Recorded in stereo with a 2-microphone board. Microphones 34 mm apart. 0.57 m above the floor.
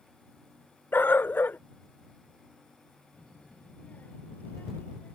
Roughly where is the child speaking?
Left.